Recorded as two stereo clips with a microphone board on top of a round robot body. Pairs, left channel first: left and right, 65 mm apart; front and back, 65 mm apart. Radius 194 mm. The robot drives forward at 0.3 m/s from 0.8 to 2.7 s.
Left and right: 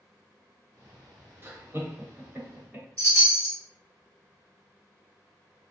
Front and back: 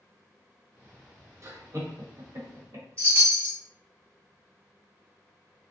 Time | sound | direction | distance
1.4 | laughter | 140° right | 1.2 m
3.0 | a chime | 130° right | 1.6 m